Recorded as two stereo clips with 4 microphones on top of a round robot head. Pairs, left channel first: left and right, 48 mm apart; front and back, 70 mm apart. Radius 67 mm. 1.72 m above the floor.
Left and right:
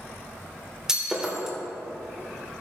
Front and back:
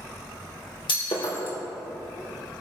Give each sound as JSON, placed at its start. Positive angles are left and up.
{"t": 0.9, "sound": "breaking glass", "azimuth_deg": -15, "distance_m": 3.0}